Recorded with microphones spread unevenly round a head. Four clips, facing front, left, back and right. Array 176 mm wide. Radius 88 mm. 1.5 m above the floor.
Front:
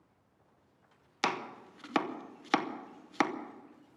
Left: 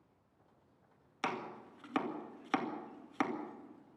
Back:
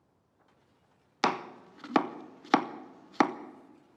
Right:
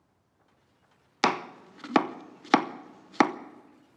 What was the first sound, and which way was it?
Chopping, 110° right.